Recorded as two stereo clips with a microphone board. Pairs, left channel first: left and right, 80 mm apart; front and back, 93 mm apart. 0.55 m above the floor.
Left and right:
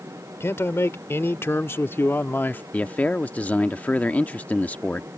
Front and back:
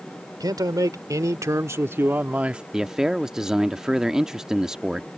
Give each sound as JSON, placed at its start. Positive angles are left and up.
{"t": 0.4, "sound": "a man speaking", "azimuth_deg": 145}
{"t": 2.7, "sound": "a man speaking", "azimuth_deg": 110}